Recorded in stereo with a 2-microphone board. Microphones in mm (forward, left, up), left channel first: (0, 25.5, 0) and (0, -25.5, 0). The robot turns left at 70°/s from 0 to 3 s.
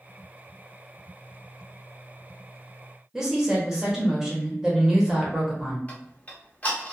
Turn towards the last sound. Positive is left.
turn(degrees=30)  # may be behind; listen again after turning